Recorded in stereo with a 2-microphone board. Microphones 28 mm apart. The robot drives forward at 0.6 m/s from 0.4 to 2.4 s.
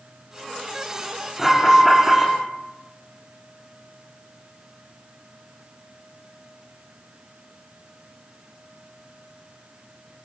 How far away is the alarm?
About 7 m.